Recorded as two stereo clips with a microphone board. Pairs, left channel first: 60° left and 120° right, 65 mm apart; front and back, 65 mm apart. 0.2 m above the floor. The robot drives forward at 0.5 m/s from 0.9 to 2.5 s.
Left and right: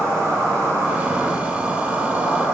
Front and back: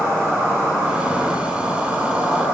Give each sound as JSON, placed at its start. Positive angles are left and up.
{"t": 0.0, "sound": "an insect", "azimuth_deg": -125, "distance_m": 0.9}